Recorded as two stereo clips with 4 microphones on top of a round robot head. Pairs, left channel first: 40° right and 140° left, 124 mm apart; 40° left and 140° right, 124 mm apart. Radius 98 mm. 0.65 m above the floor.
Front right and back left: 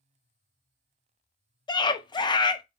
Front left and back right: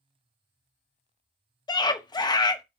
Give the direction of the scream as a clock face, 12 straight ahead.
12 o'clock.